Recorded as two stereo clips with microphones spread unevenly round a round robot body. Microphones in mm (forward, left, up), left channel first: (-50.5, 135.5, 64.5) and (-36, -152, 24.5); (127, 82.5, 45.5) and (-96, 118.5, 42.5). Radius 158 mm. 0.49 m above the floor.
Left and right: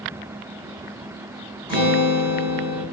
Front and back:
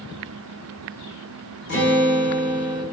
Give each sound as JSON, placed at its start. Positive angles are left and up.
{"t": 1.7, "sound": "a guitar", "azimuth_deg": 0, "distance_m": 1.9}